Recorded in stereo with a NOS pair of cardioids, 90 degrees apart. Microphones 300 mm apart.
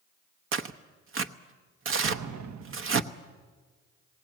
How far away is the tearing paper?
About 1.0 m.